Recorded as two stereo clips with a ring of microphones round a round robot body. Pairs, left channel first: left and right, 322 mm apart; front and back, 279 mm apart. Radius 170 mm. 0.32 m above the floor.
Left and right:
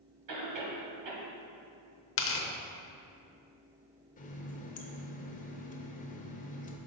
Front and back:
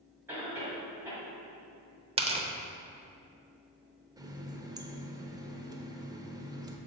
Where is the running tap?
120° left, 0.7 m.